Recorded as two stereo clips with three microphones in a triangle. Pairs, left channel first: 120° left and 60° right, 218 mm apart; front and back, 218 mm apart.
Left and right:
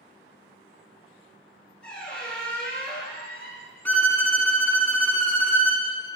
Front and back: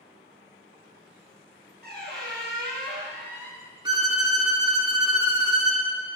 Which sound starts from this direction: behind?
A violin, at 3.9 s.